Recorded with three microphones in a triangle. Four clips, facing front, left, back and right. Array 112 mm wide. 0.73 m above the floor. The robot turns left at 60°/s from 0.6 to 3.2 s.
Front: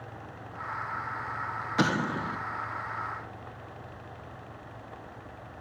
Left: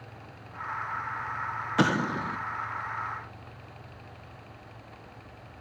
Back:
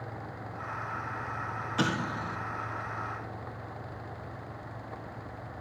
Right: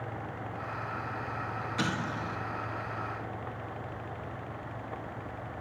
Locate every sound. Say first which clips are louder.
1.8 s an explosion: left 9 dB, front 4 dB; 70° left, 1.0 m; by 2.4 s 35° left, 1.0 m